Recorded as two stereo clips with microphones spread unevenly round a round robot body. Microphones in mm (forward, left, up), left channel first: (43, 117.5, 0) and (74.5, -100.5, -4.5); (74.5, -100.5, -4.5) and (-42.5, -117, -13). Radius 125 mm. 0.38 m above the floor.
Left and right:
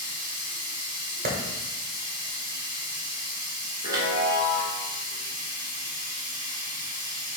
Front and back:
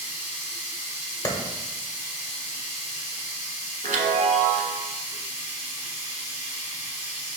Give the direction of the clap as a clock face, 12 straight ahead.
2 o'clock.